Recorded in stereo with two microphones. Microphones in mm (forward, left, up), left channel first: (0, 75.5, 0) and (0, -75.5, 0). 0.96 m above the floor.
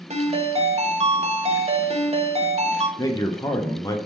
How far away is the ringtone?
About 0.7 m.